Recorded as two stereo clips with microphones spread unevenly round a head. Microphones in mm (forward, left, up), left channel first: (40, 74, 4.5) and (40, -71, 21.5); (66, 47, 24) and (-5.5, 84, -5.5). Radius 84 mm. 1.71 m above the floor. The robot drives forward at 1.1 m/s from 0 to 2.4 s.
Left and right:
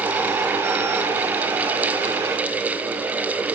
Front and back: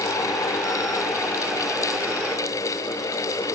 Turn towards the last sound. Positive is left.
No sound to turn to.